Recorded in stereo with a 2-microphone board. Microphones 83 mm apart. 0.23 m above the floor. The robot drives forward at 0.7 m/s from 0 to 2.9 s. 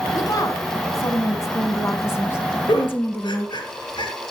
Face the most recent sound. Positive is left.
turn(degrees=75)  # may be behind; listen again after turning